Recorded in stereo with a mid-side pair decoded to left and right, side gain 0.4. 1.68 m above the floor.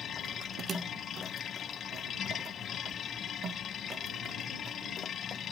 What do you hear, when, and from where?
0.0 s a machine running: 65° left